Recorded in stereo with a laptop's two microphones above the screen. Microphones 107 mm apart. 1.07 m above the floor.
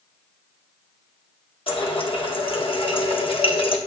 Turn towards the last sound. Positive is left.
turn(degrees=55)  # may be behind; listen again after turning